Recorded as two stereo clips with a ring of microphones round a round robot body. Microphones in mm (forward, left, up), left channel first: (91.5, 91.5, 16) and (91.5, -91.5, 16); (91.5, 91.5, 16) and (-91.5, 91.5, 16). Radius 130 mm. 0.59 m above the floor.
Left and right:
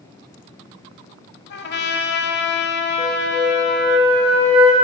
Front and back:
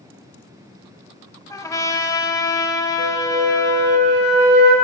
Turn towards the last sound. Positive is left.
turn(degrees=-155)